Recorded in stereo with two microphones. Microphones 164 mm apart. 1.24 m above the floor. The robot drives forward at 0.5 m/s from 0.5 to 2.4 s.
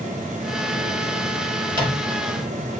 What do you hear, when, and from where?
1.7 s a microwave: 30° right (ahead or behind), 1.1 m; by 2.2 s 25° right (ahead or behind), 1.3 m